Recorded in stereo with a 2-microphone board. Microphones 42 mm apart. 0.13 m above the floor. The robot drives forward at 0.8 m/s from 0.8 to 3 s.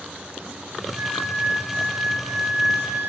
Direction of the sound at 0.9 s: 30° right (ahead or behind).